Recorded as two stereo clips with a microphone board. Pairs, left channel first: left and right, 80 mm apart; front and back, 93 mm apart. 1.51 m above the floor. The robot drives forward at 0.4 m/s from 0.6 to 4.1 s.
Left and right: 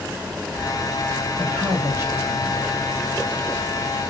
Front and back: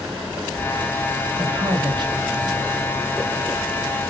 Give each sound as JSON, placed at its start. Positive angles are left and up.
{"t": 1.4, "sound": "a man speaking", "azimuth_deg": -145, "distance_m": 2.0}